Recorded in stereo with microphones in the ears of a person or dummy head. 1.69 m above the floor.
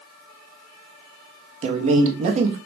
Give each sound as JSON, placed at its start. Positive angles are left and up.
{"t": 1.6, "sound": "a man speaking", "side_deg": -40, "distance_m": 0.7}